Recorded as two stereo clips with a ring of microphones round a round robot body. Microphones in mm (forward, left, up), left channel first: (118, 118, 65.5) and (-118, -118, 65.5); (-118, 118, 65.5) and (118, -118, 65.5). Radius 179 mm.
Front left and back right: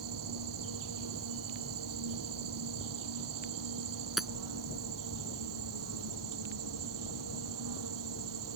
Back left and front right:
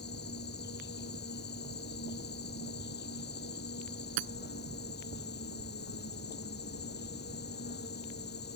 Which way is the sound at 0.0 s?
165° right.